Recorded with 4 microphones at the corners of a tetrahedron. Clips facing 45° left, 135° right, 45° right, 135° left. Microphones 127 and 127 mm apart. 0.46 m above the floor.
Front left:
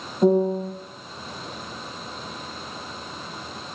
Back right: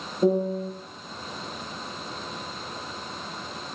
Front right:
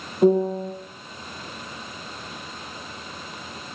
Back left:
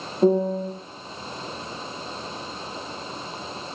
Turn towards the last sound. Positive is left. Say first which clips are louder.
# front left 4 dB, front right 1 dB
turn(degrees=25)